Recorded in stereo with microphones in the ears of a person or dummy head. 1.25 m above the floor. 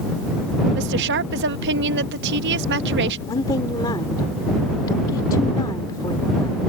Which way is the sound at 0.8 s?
65° right (ahead or behind).